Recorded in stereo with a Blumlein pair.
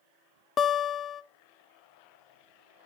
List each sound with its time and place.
0.6 s a guitar: 25° left, 0.9 m